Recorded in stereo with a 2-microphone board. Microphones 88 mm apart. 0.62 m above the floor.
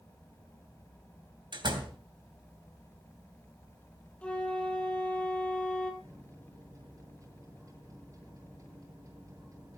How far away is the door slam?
About 3 m.